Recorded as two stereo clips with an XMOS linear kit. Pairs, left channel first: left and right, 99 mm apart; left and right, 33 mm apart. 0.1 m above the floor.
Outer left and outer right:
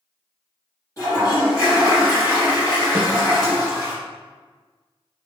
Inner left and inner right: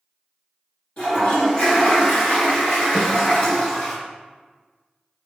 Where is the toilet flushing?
35° left (ahead or behind), 2.0 m.